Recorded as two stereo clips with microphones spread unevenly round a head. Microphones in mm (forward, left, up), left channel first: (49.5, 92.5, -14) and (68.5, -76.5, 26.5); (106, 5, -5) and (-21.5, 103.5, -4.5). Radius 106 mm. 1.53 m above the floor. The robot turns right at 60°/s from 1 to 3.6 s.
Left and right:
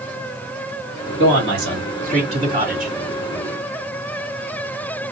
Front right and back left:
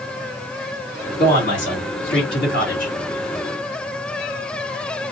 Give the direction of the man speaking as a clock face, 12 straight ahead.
3 o'clock.